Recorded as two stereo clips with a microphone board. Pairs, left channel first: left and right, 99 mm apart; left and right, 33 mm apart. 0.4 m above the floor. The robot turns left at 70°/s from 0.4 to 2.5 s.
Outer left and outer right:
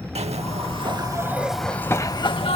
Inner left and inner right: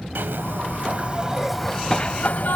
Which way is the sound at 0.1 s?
100° right.